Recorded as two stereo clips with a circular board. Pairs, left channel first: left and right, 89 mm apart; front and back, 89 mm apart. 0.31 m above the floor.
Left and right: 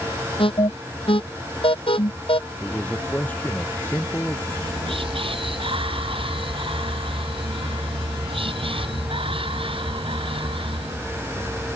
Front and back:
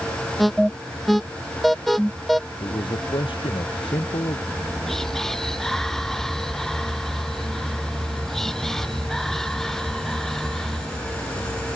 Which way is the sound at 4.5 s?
85° right.